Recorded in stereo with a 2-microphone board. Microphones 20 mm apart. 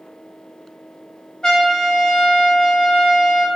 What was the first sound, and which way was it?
A trumpet, 40° left (ahead or behind).